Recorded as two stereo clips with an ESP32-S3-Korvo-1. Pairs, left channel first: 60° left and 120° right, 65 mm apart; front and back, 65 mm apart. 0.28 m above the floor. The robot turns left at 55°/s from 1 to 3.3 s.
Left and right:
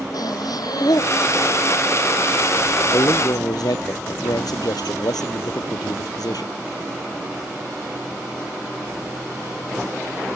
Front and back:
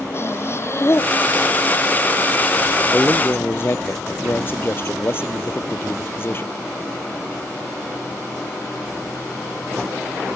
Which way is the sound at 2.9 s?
75° left.